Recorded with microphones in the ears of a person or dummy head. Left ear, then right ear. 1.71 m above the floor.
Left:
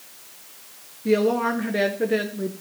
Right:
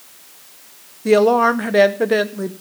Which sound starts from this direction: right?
A woman speaking, at 1.1 s.